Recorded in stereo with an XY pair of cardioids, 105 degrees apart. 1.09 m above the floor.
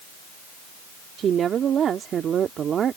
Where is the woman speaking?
55° right.